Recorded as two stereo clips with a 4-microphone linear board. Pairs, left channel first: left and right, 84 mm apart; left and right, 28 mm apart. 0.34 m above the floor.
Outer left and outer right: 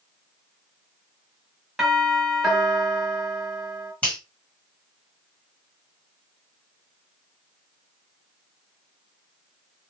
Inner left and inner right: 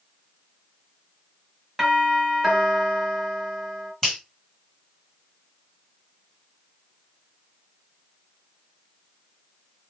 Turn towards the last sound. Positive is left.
turn(degrees=20)  # may be behind; listen again after turning